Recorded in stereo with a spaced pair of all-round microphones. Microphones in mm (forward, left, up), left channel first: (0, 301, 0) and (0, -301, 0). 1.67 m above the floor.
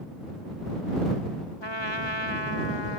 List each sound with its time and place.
1.6 s a trumpet: 40° left (ahead or behind)